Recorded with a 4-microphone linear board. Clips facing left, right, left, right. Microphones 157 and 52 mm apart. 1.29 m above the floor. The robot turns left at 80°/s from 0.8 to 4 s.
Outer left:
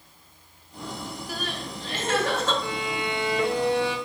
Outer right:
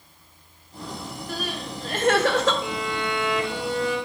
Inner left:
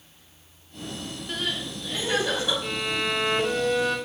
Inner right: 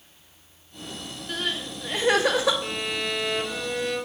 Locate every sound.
1.3 s crying: 5° left, 0.6 m; by 2.5 s 90° right, 0.6 m
2.6 s a violin: 165° right, 0.6 m; by 4.0 s 90° left, 0.6 m